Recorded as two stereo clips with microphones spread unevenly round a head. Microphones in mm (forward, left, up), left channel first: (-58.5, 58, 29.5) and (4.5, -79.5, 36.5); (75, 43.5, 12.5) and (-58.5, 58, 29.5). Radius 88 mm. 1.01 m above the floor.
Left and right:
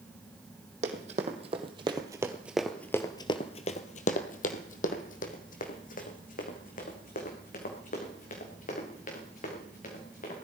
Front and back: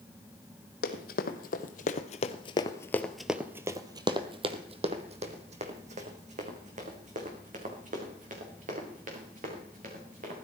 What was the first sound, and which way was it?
Running footsteps, 20° right.